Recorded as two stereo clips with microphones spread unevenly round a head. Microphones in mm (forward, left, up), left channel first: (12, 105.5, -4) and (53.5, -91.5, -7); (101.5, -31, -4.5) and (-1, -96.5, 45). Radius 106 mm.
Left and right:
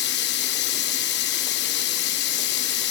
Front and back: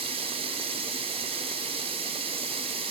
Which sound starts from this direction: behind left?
Running water, at 0.0 s.